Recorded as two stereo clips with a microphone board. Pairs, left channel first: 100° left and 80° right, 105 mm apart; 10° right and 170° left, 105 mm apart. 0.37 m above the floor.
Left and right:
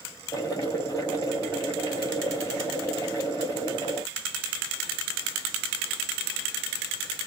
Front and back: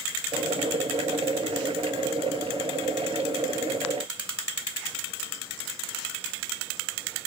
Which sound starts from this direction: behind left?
Boiling, at 0.3 s.